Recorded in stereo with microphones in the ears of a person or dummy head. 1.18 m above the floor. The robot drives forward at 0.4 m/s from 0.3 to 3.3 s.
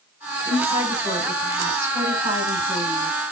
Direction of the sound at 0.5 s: 20° right (ahead or behind).